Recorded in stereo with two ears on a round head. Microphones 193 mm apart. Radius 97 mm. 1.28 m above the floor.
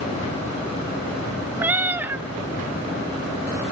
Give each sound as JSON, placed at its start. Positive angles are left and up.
{"t": 1.6, "sound": "a cat meowing", "side_deg": -10, "distance_m": 0.8}